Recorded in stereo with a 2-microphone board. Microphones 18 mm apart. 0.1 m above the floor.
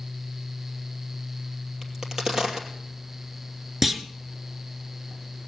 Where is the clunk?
15° right (ahead or behind), 0.9 m.